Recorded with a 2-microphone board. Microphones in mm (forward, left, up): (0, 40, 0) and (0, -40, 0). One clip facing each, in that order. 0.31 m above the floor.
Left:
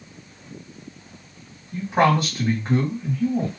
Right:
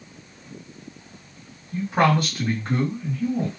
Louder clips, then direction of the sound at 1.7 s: Left 1 dB; 15° left (ahead or behind).